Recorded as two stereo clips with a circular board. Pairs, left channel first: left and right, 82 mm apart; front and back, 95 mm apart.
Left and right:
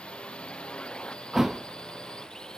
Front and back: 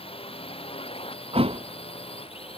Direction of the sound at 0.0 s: 15° left.